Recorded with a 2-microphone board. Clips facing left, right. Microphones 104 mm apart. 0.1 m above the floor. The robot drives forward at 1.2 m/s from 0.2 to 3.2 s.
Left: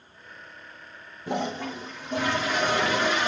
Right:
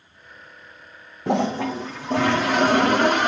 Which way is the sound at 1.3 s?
70° right (ahead or behind).